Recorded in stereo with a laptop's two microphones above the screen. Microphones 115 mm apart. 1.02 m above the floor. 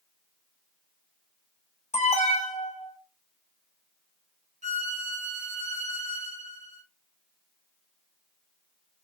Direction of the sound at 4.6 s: 80° right.